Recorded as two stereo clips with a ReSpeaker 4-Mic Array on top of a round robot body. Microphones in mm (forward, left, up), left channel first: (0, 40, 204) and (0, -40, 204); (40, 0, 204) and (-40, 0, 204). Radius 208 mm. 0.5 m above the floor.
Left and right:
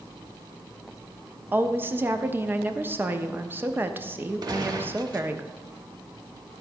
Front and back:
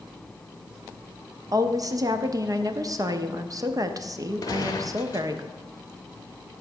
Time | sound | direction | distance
1.5 | a woman speaking | 150° right | 1.0 m
4.4 | a gunshot | 50° right | 0.6 m